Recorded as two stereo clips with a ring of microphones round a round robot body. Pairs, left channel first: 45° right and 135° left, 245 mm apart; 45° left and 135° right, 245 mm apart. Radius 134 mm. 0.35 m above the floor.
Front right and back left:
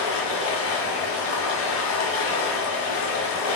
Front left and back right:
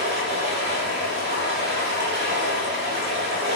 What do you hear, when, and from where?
0.0 s running water: 85° right, 1.1 m